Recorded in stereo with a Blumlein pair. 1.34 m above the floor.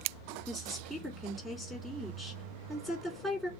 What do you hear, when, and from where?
0.5 s a woman speaking: 10° left, 4.5 m